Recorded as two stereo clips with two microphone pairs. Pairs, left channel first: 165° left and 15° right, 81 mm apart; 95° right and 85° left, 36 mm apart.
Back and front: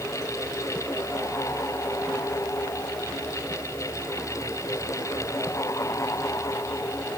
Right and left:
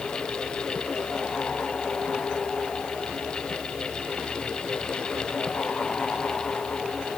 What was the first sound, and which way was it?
Only background noise.